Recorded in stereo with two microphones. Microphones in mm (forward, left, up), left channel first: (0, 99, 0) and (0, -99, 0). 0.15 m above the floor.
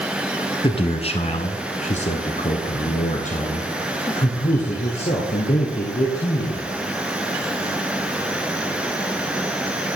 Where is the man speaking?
30° left (ahead or behind), 1.3 m; by 6.7 s 35° left (ahead or behind), 3.5 m.